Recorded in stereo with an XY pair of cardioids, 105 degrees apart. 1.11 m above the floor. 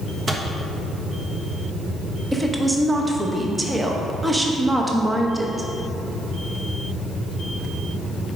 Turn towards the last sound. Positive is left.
turn(degrees=-15)